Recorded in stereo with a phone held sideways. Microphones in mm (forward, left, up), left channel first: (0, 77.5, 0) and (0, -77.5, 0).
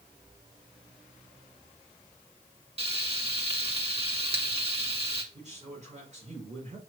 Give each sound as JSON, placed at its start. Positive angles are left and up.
{"t": 2.8, "sound": "frying", "side_deg": -40, "distance_m": 1.4}
{"t": 5.3, "sound": "a man speaking", "side_deg": -50, "distance_m": 4.5}